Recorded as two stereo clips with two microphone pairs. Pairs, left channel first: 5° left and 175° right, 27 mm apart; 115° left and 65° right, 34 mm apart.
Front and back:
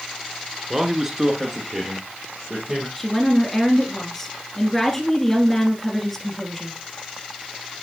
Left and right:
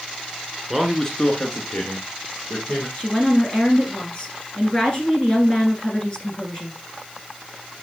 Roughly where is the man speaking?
Behind right.